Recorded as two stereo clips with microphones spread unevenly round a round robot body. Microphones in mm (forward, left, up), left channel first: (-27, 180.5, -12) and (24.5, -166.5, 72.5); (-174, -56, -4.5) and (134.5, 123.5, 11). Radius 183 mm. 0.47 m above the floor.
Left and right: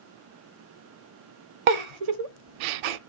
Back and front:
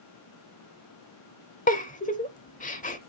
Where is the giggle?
80° right, 0.7 m.